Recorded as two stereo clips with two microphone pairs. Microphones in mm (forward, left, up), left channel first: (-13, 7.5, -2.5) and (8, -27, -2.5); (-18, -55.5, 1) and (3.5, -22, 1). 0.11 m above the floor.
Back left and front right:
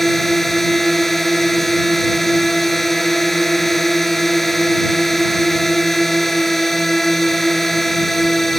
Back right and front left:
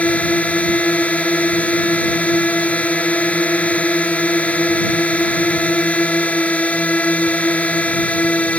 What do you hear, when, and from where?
0.0 s a drone: 155° right